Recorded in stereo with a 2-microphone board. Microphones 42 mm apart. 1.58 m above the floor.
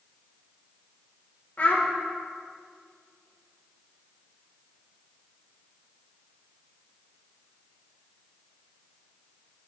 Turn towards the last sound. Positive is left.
turn(degrees=45)  # may be behind; listen again after turning